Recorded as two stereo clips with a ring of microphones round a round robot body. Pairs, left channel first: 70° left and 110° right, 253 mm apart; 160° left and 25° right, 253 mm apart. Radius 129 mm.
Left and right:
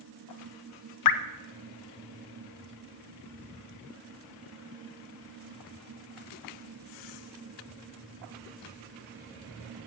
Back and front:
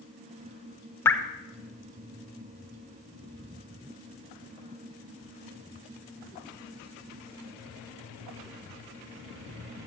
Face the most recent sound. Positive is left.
turn(degrees=75)